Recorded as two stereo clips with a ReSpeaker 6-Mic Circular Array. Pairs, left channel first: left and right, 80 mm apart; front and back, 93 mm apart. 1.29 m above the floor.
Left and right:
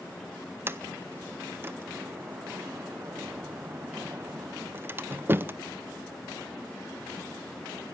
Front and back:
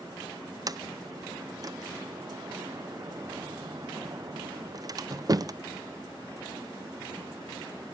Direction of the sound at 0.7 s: 145° right.